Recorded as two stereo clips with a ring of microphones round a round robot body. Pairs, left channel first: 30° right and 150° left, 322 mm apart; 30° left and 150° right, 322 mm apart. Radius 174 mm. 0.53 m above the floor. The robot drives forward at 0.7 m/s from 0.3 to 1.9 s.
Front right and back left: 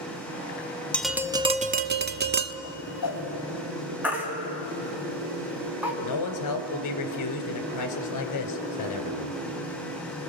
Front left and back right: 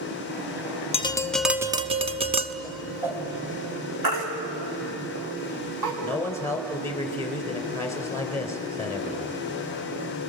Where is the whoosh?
65° right, 2.5 m.